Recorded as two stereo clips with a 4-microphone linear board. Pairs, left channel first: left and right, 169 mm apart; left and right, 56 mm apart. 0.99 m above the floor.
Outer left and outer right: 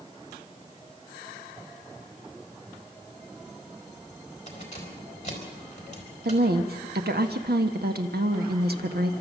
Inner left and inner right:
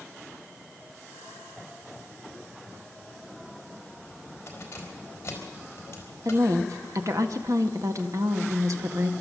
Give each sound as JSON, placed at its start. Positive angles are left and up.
{"t": 4.5, "sound": "keys jangling", "side_deg": 45, "distance_m": 4.0}
{"t": 6.2, "sound": "a woman speaking", "side_deg": -70, "distance_m": 1.4}